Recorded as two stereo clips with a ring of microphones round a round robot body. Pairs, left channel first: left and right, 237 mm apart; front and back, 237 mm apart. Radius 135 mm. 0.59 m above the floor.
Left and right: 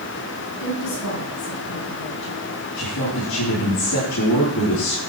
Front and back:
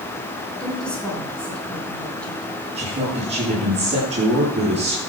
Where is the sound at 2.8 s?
120° left, 9 m.